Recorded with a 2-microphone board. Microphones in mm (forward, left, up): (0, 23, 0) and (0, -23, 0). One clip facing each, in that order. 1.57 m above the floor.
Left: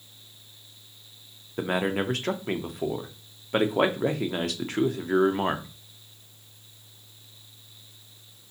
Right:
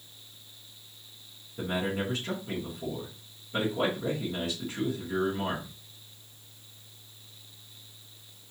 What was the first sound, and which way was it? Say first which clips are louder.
A man speaking: left 5 dB; 70° left (ahead or behind).